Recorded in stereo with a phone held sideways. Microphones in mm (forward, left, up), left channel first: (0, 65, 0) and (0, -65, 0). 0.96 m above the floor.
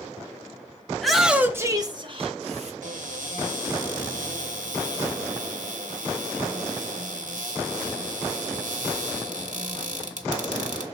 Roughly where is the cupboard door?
Right.